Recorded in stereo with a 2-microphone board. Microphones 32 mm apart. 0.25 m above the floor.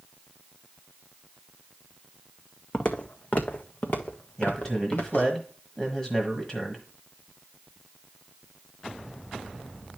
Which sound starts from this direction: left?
Footsteps, at 2.7 s.